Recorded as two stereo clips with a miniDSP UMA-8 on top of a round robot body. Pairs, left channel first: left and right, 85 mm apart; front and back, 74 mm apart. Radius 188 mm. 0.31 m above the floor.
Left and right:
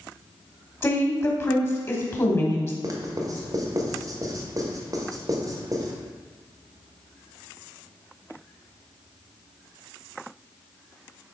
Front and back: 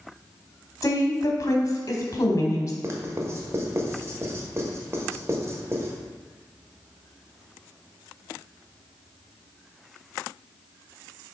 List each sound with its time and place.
0.8 s a woman speaking: 40° left, 1.9 m
2.8 s writing: 130° right, 1.7 m